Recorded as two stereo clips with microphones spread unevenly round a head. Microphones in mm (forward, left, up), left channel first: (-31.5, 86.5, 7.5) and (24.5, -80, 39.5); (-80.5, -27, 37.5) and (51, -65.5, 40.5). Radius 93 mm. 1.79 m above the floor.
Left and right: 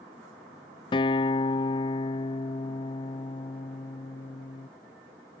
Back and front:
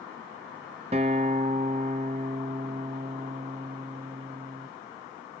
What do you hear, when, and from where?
0.9 s a guitar: 40° left